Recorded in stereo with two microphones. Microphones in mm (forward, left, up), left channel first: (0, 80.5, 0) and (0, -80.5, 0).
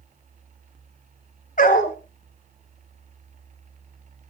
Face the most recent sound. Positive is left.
turn(degrees=55)  # may be behind; listen again after turning